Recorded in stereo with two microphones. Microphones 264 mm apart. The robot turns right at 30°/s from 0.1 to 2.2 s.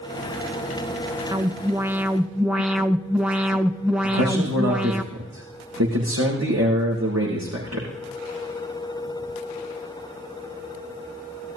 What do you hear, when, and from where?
1.3 s an alarm: 15° right (ahead or behind), 0.8 m; by 5.0 s 5° right (ahead or behind), 0.8 m
4.0 s a man speaking: 75° right (ahead or behind), 7 m